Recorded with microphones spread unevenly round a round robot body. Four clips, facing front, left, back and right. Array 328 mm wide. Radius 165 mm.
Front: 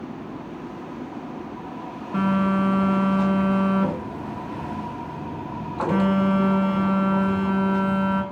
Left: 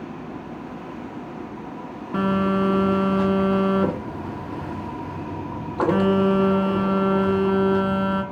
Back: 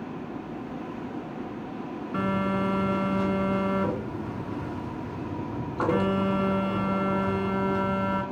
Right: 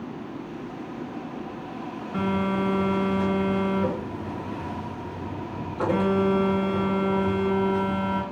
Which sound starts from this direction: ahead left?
A phone buzzing, at 2.1 s.